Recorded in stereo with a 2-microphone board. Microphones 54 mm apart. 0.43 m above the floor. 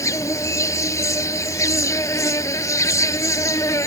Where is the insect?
75° left (ahead or behind).